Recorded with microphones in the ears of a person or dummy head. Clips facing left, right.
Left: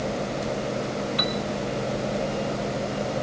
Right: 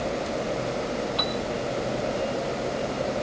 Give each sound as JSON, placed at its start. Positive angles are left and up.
{"t": 1.2, "sound": "a piano", "side_deg": 25}